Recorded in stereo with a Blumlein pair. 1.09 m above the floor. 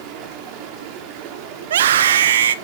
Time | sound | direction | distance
0.0 | running water | 45° right | 2.5 m
1.6 | a scream | 60° right | 1.0 m